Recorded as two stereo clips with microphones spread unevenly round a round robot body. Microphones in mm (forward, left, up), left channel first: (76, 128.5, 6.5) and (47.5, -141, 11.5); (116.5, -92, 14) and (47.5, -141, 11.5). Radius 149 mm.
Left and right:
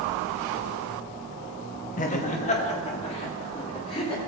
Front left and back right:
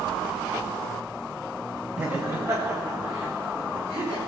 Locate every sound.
2.0 s laughter: 140° left, 0.8 m; by 4.2 s 160° left, 2.5 m